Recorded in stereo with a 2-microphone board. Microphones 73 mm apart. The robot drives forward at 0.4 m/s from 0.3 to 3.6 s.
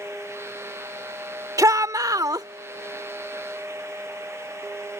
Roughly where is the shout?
Right.